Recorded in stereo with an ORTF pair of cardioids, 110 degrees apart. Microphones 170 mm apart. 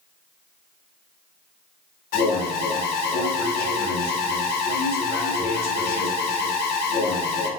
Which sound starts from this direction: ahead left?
An alarm, at 2.1 s.